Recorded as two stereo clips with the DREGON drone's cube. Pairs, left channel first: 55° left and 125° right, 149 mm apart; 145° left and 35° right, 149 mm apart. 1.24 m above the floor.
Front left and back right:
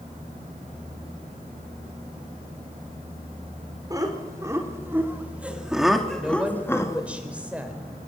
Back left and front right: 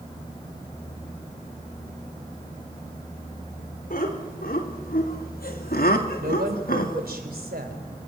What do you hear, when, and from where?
3.9 s laughter: 170° left, 4.5 m; by 7.1 s 120° left, 2.5 m
6.2 s a woman speaking: 40° right, 4 m